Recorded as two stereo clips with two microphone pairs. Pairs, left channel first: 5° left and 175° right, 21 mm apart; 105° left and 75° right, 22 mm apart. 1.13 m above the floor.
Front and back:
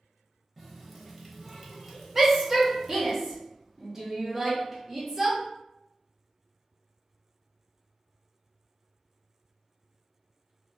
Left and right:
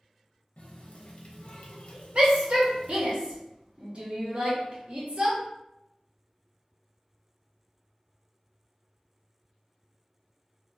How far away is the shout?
About 1.1 m.